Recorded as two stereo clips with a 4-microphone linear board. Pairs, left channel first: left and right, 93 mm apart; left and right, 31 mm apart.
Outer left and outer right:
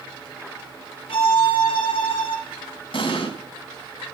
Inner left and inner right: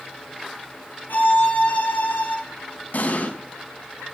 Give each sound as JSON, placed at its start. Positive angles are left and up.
{"t": 1.1, "sound": "a violin", "side_deg": 70, "distance_m": 4.0}
{"t": 2.9, "sound": "an explosion", "side_deg": 65, "distance_m": 3.5}